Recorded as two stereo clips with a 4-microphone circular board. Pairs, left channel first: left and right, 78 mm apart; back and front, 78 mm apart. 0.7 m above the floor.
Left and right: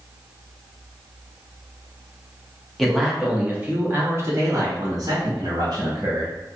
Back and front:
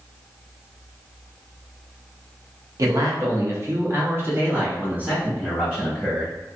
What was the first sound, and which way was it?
A man speaking, 5° left.